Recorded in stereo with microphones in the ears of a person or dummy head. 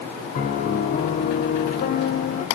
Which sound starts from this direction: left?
A piano, at 0.3 s.